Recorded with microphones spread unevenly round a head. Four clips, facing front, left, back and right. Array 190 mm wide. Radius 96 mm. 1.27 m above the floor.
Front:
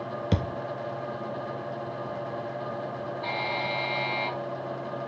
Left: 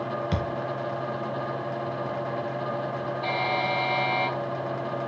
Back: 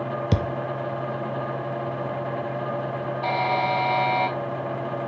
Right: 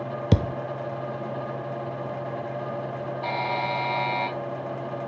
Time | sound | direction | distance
0.3 | a thud | 110° right | 0.7 m
3.2 | a buzzer | 175° right | 3 m